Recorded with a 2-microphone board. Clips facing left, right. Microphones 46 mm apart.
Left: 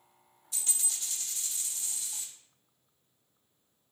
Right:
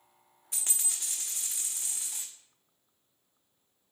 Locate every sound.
0.5 s a dropped coin: 70° right (ahead or behind), 0.7 m